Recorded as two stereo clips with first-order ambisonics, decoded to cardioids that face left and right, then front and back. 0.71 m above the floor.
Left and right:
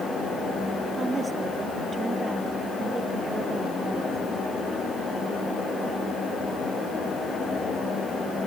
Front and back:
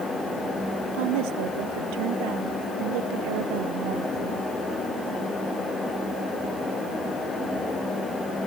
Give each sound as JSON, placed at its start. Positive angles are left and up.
{"t": 0.9, "sound": "a woman speaking", "azimuth_deg": -165}